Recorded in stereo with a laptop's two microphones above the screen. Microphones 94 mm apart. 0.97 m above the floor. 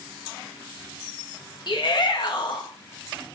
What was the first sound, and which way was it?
A shout, 55° left (ahead or behind).